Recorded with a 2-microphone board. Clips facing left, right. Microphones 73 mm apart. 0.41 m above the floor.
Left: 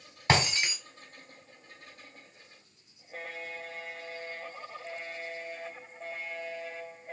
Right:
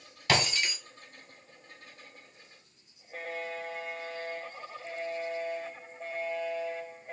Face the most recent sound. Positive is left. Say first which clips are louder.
# left 2 dB
turn(degrees=30)  # may be behind; listen again after turning